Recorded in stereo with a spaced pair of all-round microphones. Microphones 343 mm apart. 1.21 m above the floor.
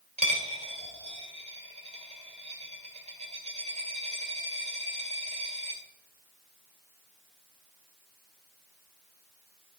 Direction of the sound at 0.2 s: 20° right (ahead or behind).